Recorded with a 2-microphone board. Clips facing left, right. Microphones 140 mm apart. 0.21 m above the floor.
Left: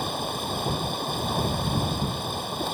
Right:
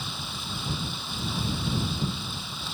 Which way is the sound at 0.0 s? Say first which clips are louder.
Left 9 dB; 60° left (ahead or behind).